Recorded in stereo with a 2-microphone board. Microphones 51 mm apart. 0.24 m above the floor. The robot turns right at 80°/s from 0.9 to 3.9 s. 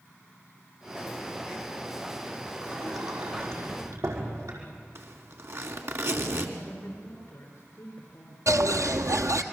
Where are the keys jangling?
No keys jangling in this recording.